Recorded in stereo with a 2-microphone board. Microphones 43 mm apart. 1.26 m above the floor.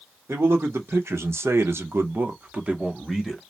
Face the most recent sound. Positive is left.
turn(degrees=-5)  # may be behind; listen again after turning